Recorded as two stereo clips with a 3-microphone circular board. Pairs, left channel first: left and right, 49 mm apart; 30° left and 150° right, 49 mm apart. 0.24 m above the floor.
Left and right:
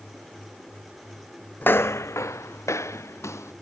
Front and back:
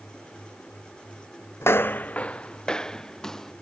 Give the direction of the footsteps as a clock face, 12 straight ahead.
11 o'clock.